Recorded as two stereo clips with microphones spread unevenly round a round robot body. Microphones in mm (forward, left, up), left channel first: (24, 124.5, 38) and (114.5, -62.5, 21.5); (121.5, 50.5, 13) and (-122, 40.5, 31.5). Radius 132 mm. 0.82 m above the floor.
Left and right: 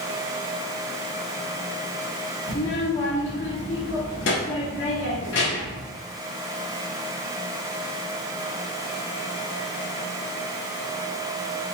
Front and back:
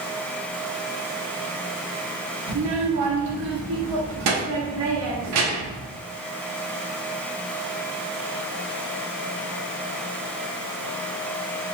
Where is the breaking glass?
I don't hear breaking glass.